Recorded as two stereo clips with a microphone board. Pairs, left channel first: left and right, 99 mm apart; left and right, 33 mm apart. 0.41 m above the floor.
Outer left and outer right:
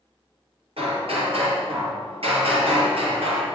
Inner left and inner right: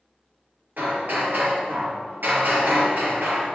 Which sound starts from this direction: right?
Hammering, at 0.8 s.